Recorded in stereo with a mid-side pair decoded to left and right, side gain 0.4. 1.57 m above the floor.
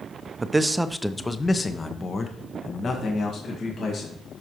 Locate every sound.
0.4 s a man speaking: 35° right, 0.7 m; by 4.1 s 60° left, 2.5 m